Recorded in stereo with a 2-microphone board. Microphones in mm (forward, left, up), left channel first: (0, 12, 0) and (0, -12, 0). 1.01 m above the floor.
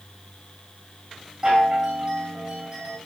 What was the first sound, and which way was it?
A chime, 30° right (ahead or behind).